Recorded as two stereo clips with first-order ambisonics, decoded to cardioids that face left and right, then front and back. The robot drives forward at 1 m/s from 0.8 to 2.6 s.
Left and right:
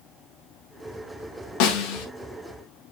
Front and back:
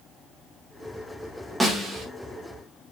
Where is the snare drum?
95° left, 2 m; by 2.1 s 105° left, 2 m.